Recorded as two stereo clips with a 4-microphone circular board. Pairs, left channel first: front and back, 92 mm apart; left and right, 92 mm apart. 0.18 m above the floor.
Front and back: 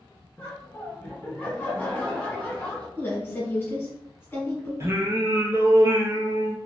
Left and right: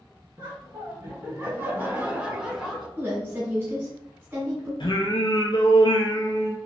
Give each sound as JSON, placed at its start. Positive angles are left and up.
{"t": 0.4, "sound": "laughter", "azimuth_deg": -70, "distance_m": 1.9}
{"t": 3.0, "sound": "a woman speaking", "azimuth_deg": -45, "distance_m": 1.2}
{"t": 4.8, "sound": "singing", "azimuth_deg": 120, "distance_m": 0.6}